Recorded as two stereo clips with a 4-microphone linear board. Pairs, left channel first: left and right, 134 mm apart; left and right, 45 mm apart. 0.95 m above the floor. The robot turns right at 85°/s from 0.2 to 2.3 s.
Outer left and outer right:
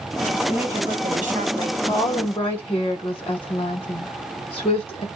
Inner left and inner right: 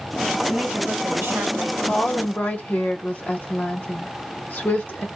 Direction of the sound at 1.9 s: 45° left.